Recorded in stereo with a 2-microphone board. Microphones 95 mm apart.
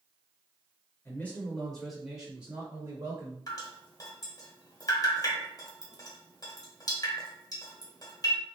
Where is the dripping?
40° left (ahead or behind), 1.0 m.